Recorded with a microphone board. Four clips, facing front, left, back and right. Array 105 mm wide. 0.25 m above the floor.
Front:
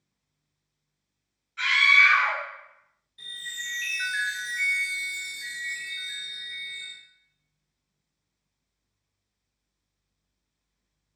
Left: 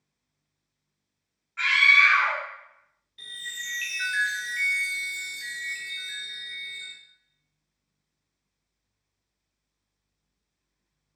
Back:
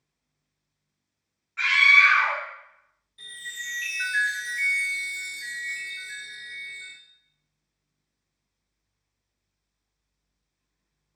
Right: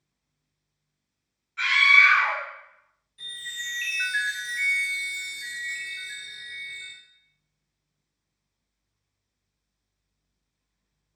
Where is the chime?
95° left, 0.9 m.